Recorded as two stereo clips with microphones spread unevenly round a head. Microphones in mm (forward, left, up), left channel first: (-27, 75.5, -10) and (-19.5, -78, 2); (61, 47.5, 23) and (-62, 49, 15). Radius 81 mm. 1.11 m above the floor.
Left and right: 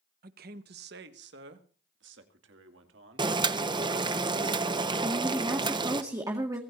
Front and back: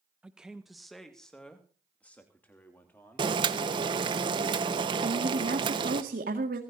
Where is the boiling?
145° right, 1.0 m.